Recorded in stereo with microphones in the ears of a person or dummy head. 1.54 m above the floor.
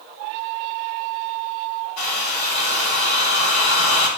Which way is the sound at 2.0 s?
80° left.